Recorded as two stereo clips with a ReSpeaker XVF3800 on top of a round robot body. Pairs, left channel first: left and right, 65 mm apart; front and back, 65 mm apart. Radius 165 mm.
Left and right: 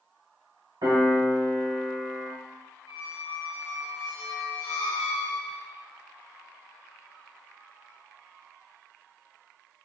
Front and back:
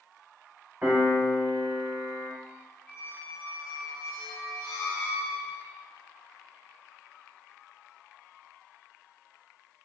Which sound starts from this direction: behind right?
A piano, at 0.8 s.